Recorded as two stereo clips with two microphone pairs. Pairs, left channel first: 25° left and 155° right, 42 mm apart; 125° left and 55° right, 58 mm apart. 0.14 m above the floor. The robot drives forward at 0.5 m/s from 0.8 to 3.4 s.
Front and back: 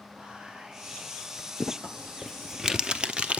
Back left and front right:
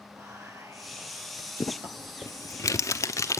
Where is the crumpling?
90° left, 0.7 m; by 3.4 s 145° left, 1.1 m.